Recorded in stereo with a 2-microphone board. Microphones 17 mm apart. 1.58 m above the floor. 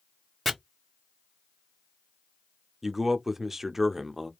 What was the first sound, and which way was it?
Chopping, 10° left (ahead or behind).